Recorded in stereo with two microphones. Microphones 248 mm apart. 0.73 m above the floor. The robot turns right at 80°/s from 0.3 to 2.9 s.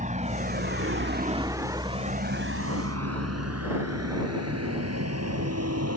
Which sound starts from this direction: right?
A vehicle, at 0.0 s.